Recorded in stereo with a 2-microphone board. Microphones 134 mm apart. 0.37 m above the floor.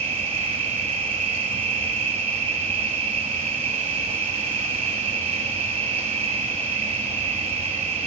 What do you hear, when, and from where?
0.0 s an insect: 55° right (ahead or behind), 1.0 m